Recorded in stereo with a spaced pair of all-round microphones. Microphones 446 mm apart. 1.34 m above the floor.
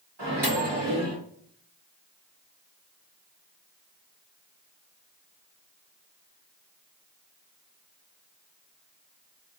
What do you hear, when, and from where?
0.2 s a microwave: 60° right (ahead or behind), 2 m